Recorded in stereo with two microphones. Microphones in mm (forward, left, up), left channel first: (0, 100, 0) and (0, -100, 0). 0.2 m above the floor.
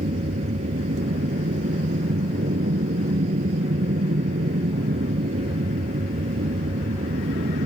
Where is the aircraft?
65° right (ahead or behind).